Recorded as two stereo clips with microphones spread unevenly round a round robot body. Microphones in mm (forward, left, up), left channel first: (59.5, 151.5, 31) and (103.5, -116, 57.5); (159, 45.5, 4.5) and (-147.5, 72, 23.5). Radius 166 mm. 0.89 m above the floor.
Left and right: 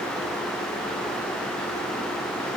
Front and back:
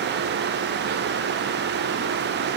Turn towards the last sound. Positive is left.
No sound to turn to.